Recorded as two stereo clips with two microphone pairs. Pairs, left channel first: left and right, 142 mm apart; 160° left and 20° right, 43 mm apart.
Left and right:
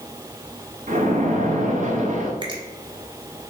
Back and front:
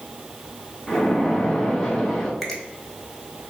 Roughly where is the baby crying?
No baby crying in this recording.